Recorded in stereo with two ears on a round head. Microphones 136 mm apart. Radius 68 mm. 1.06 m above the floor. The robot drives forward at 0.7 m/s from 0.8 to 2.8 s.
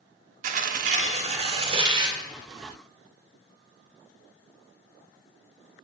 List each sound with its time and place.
0.4 s tearing paper: 50° right (ahead or behind), 1.1 m; by 2.2 s 30° right (ahead or behind), 1.8 m